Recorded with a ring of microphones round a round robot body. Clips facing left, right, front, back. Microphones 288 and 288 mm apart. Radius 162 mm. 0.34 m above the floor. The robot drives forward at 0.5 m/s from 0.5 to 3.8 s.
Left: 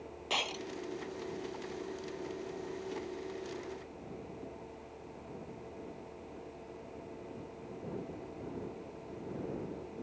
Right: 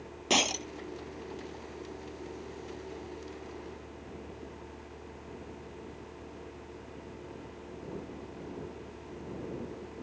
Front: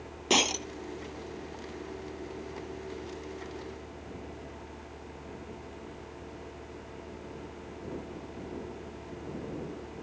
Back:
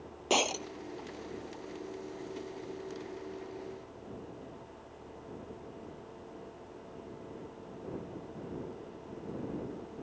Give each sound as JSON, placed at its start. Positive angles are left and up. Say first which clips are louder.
{"t": 0.3, "sound": "breaking glass", "louder": "right 9 dB, front 2 dB", "azimuth_deg": -60}